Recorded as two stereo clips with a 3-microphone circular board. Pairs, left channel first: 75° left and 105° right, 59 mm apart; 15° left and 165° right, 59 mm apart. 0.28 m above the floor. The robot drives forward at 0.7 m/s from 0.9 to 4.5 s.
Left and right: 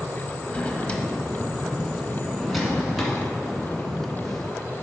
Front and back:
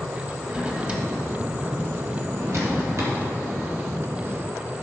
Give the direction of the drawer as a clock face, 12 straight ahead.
8 o'clock.